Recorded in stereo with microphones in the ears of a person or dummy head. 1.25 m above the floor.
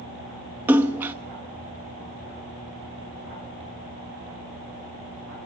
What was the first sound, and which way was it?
A splash, 10° right (ahead or behind).